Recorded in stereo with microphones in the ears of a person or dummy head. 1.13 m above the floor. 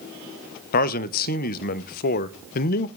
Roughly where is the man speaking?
Left.